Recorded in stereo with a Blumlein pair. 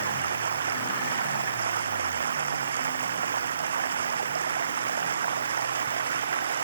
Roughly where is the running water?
Ahead right.